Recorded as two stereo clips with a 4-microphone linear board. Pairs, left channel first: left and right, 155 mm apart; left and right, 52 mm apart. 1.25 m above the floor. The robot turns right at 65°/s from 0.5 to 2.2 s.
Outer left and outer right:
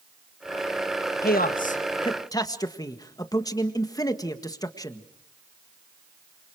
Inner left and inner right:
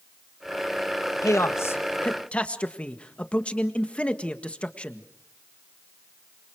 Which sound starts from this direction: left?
A man speaking, at 1.2 s.